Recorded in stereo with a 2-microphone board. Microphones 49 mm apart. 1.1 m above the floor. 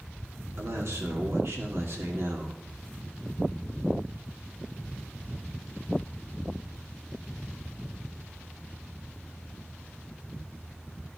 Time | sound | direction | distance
0.6 | a man speaking | 65° right (ahead or behind) | 2.5 m